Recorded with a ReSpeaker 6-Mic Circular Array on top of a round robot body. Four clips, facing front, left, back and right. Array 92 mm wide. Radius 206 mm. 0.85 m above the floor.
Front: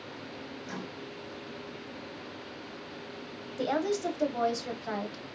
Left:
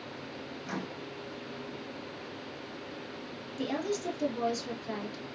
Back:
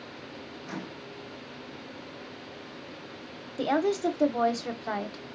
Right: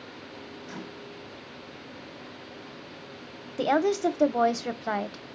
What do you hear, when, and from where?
0.6 s a microwave: 115° left, 1.4 m
3.6 s a woman speaking: 105° right, 0.8 m